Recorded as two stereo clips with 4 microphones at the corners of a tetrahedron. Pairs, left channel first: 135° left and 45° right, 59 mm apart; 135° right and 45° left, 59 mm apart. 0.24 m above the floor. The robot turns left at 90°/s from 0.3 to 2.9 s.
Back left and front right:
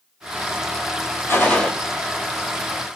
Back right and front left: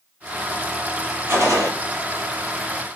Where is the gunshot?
90° left, 1.0 m; by 1.7 s 50° left, 1.0 m.